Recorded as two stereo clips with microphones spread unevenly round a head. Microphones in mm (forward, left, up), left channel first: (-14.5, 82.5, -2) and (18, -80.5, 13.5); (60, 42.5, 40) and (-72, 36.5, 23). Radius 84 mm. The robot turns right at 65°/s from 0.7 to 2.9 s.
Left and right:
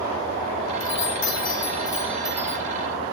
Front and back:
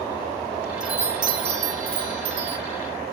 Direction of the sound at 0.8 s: 100° left.